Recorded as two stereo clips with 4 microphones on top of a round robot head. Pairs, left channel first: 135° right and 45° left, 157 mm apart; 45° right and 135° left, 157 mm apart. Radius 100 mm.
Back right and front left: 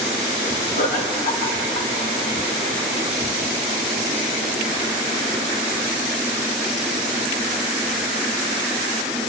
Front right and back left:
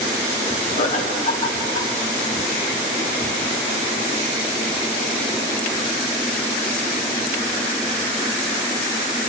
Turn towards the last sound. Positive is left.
turn(degrees=-90)